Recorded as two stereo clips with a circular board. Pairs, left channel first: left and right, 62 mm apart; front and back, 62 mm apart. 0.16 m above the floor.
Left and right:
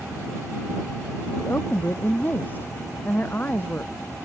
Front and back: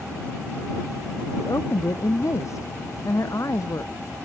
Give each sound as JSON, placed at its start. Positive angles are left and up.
{"t": 1.4, "sound": "a woman speaking", "azimuth_deg": 35}